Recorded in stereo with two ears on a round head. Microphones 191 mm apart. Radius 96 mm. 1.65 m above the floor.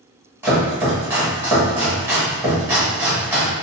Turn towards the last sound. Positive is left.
turn(degrees=-10)  # may be behind; listen again after turning